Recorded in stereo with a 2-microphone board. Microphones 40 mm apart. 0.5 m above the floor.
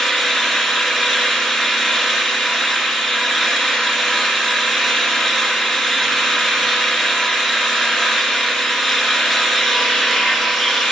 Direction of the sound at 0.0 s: Centre (ahead or behind).